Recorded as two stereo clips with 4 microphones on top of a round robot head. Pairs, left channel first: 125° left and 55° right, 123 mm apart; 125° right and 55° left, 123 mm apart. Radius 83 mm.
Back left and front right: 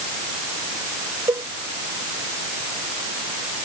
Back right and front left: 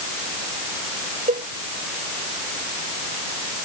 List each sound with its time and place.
1.3 s a cowbell: 15° left